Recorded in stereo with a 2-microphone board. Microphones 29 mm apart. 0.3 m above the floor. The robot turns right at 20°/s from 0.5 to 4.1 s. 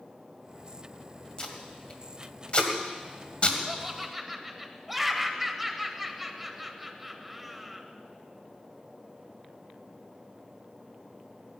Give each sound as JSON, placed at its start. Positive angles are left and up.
{"t": 1.4, "sound": "tape being pulled", "side_deg": 35, "distance_m": 1.8}
{"t": 3.7, "sound": "laughter", "side_deg": -10, "distance_m": 1.4}